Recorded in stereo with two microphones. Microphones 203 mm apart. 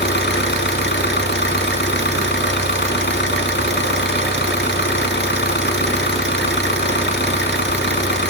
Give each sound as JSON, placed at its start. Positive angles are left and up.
{"t": 0.0, "sound": "an engine running", "side_deg": 60, "distance_m": 1.1}